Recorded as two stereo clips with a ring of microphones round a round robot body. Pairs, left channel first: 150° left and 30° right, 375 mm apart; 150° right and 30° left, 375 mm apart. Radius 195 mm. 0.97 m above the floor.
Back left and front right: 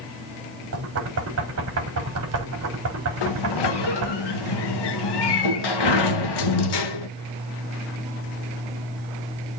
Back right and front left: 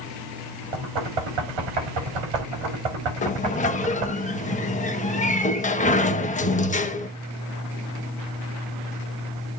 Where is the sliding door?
140° left, 1.4 m.